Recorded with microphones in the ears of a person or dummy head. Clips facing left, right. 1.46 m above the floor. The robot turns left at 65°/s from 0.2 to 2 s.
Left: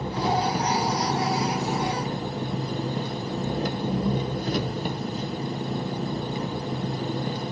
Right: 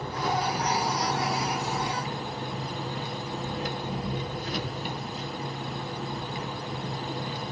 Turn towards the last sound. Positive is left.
turn(degrees=45)